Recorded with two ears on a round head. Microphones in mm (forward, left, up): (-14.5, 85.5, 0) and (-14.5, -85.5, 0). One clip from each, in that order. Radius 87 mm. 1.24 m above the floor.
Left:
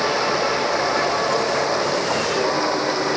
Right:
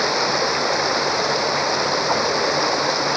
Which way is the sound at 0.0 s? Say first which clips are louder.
Even; 30° right (ahead or behind).